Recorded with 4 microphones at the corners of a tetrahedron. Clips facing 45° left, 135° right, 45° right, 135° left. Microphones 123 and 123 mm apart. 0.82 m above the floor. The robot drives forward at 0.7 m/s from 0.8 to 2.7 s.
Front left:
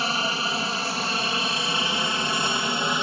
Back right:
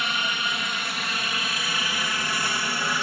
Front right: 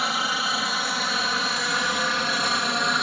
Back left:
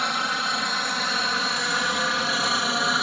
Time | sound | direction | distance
0.0 | a helicopter | 40° left | ?